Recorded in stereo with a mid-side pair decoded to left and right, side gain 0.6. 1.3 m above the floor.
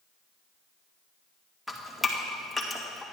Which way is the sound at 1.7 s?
Straight ahead.